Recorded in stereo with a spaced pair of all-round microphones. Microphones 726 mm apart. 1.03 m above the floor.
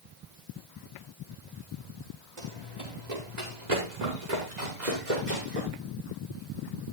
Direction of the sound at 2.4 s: 65° right (ahead or behind).